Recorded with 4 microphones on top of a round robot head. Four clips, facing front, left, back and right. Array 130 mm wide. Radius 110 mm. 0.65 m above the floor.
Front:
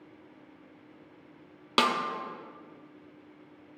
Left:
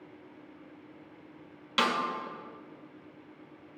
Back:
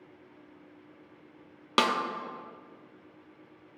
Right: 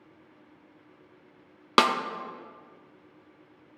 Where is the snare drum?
90° right, 0.9 m.